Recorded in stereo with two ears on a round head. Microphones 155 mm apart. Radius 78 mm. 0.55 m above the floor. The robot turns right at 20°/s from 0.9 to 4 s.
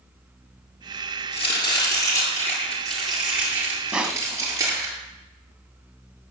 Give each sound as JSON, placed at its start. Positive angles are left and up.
{"t": 1.3, "sound": "chopping", "azimuth_deg": 145, "distance_m": 9.0}
{"t": 3.9, "sound": "crushing", "side_deg": -5, "distance_m": 1.4}